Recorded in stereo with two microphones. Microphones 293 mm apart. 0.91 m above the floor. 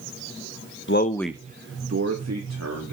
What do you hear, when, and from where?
0.9 s a man speaking: 40° left (ahead or behind), 0.7 m; by 2.9 s 70° right (ahead or behind), 2.5 m